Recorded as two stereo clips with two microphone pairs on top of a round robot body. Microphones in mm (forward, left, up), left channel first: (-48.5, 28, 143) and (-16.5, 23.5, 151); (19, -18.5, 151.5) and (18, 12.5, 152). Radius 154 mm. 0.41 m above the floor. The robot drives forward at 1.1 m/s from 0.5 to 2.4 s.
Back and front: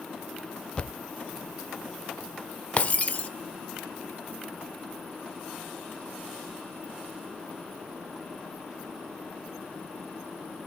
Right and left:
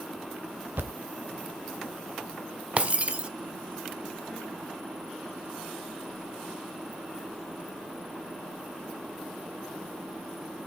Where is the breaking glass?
140° left, 1.1 m.